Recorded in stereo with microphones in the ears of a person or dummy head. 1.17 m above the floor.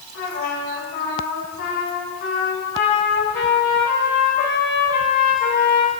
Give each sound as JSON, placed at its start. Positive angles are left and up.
{"t": 0.1, "sound": "a trumpet", "side_deg": 80, "distance_m": 4.0}